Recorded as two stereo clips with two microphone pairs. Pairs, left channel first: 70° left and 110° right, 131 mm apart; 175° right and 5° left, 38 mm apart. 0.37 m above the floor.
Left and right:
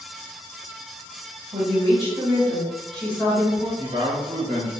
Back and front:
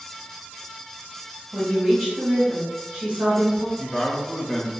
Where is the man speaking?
110° right, 1.0 m.